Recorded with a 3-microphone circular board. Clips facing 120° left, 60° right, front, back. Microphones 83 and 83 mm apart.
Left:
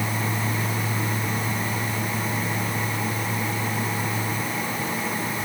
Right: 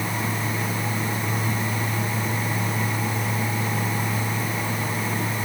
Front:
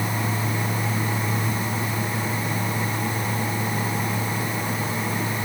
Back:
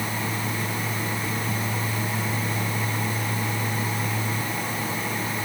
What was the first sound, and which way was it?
Only background noise.